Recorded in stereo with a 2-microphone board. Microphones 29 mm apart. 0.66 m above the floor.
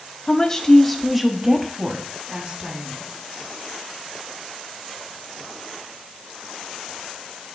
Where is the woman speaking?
25° left (ahead or behind), 0.8 m; by 3.1 s 40° right (ahead or behind), 1.5 m.